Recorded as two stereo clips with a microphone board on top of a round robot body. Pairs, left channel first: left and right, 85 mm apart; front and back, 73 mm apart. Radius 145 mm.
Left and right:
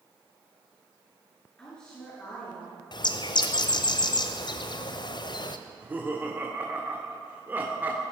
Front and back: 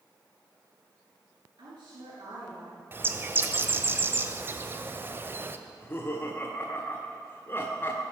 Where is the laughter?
35° right, 1.7 m.